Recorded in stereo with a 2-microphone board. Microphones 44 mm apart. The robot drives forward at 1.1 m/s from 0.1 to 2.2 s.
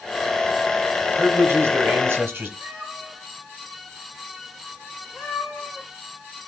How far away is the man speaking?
About 3.5 m.